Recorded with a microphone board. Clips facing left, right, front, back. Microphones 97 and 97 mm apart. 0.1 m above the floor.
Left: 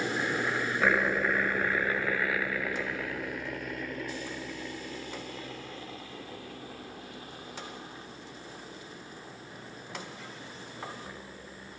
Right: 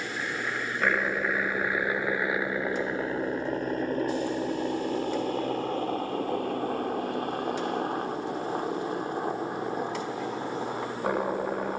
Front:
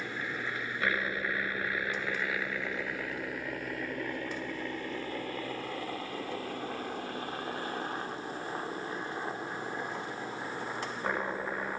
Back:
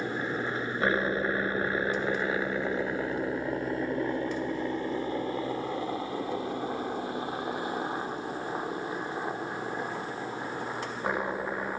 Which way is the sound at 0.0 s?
155° left.